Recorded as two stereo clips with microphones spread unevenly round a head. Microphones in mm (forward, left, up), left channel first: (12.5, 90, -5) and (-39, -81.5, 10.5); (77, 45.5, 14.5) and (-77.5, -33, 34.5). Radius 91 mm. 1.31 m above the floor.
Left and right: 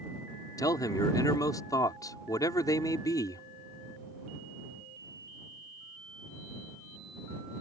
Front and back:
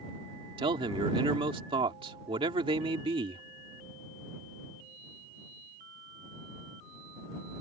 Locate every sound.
0.6 s a man speaking: 145° left